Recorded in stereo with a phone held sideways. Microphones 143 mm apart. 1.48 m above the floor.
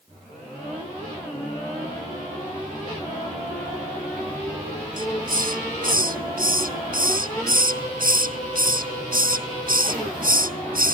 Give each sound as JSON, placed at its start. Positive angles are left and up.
{"t": 5.0, "sound": "a hiss", "side_deg": -90}